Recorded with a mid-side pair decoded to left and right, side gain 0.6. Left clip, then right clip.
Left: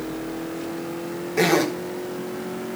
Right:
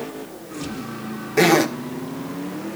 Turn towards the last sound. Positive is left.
turn(degrees=-30)